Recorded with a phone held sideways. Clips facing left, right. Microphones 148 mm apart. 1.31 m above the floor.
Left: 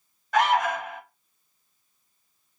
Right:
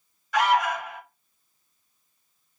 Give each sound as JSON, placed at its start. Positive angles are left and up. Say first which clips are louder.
{"t": 0.3, "sound": "an alarm", "louder": "even", "side_deg": 45, "distance_m": 1.7}